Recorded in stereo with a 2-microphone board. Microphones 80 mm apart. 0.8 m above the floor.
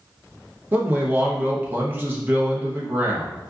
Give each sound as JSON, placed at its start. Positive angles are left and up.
{"t": 0.7, "sound": "a man speaking", "side_deg": -25, "distance_m": 0.6}